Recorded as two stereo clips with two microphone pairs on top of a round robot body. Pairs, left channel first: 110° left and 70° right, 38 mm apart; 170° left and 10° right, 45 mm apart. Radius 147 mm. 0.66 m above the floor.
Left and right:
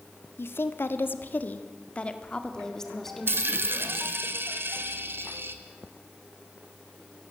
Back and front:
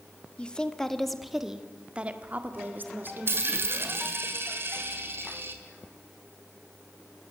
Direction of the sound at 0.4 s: 100° left.